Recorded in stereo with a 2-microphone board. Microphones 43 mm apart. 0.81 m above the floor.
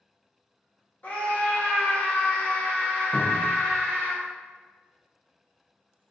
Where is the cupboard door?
80° left, 1.0 m.